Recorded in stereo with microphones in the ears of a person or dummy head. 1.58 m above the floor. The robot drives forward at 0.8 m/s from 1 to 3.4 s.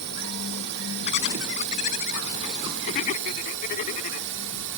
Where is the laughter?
45° left (ahead or behind); by 4.3 s 50° left (ahead or behind).